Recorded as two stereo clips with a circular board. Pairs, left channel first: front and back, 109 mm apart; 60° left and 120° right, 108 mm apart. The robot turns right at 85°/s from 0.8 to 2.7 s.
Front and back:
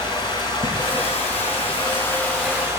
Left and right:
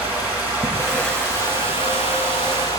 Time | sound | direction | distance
0.0 | running water | 50° right | 4 m